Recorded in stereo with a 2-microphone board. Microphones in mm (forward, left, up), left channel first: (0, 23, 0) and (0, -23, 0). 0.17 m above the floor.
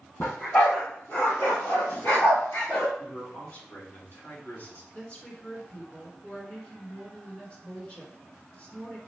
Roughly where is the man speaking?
Left.